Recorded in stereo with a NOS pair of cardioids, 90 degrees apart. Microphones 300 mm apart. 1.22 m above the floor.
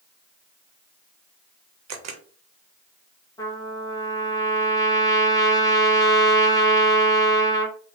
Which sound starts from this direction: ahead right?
A camera shutter, at 1.9 s.